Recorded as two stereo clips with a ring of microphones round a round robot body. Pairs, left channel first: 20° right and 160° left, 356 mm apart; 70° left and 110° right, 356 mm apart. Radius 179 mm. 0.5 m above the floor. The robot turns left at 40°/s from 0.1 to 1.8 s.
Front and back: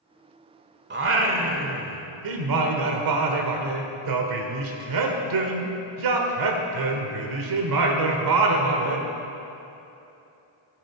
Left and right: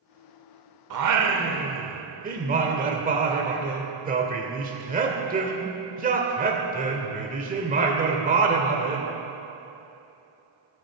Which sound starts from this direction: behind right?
Singing, at 0.9 s.